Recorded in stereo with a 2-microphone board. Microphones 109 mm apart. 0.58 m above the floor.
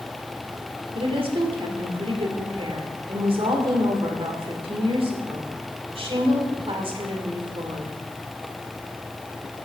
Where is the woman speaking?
60° right (ahead or behind), 1.9 m.